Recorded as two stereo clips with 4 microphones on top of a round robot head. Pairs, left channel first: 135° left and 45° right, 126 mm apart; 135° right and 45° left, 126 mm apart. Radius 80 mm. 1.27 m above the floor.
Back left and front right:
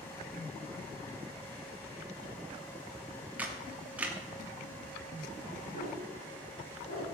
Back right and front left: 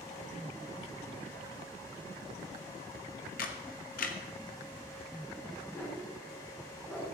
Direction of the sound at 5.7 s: 150° left.